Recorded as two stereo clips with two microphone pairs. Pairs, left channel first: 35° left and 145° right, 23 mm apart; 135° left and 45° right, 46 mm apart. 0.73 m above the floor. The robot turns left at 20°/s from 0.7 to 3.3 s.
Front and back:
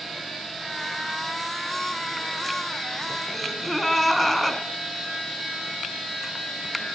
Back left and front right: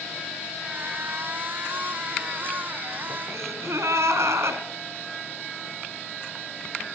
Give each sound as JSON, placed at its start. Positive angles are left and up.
{"t": 3.3, "sound": "a gasp", "azimuth_deg": -45, "distance_m": 3.0}